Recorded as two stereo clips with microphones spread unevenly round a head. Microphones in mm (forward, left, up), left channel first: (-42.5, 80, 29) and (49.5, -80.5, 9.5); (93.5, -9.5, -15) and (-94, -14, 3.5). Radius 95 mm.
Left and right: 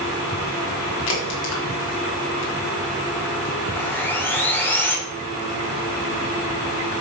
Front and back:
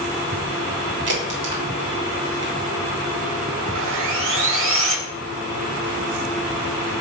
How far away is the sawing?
About 2.5 m.